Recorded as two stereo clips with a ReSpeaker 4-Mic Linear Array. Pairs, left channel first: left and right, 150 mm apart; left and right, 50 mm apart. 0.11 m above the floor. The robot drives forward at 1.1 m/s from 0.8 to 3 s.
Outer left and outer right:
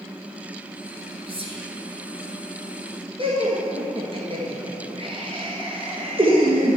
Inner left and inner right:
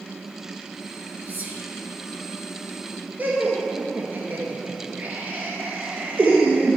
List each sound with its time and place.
1.3 s whispering: 40° right (ahead or behind), 2 m
3.2 s laughter: 40° right (ahead or behind), 1.5 m